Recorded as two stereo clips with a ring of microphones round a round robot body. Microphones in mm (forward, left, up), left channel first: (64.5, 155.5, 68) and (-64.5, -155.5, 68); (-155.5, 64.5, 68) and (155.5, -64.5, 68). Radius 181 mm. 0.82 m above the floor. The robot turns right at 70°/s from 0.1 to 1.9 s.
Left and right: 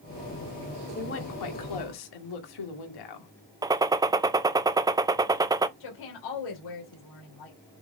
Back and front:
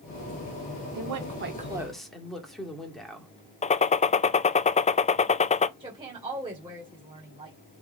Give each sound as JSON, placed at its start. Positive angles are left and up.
{"t": 0.9, "sound": "a woman speaking", "azimuth_deg": 0, "distance_m": 2.0}
{"t": 3.6, "sound": "a gunshot", "azimuth_deg": -175, "distance_m": 0.6}
{"t": 5.8, "sound": "a woman speaking", "azimuth_deg": 55, "distance_m": 2.5}